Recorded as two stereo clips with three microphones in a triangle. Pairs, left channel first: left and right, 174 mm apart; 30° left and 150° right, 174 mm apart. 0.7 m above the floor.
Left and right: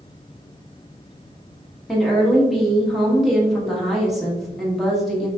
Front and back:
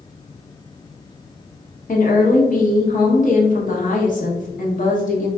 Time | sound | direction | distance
1.9 | a woman speaking | straight ahead | 1.0 m